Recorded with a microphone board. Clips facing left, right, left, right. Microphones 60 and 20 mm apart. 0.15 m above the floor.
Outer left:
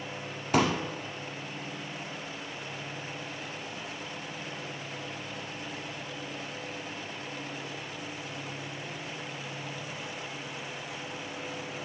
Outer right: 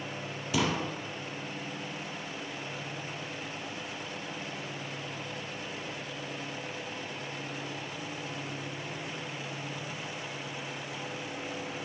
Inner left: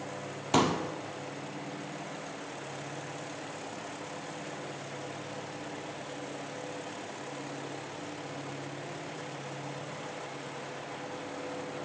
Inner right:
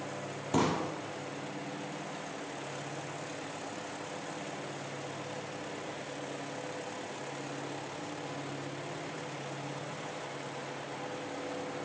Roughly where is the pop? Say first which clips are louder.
Outer left 4 dB, inner left 3 dB; left.